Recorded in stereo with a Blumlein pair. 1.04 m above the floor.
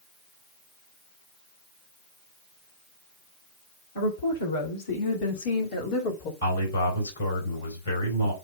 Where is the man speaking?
65° left, 4 m.